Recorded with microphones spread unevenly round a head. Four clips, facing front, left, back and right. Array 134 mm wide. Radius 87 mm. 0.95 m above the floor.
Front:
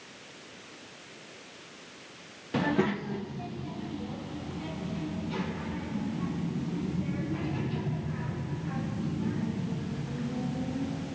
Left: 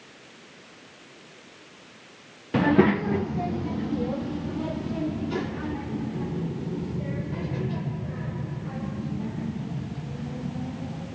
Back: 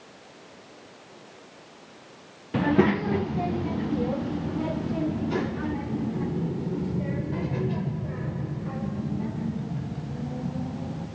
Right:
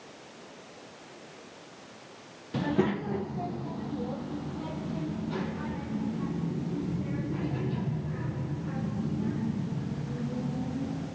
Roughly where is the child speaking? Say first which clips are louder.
Left 8 dB, back 6 dB; left.